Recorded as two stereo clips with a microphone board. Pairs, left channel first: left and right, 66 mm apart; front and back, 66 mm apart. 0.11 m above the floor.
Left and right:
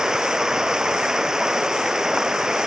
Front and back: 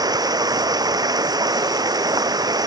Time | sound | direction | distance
0.0 | running water | 170° right | ?